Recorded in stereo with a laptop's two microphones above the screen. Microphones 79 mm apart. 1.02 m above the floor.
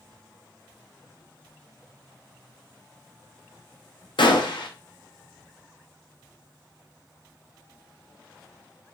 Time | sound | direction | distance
4.2 | a gunshot | 85° left | 0.5 m